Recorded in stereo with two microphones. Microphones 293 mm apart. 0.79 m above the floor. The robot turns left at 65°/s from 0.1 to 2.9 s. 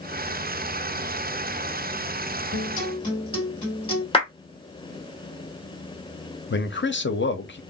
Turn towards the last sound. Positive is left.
turn(degrees=40)  # may be behind; listen again after turning